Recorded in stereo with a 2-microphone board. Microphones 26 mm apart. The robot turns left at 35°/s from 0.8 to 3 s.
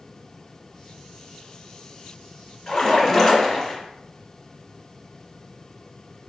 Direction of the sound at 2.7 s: 20° left (ahead or behind).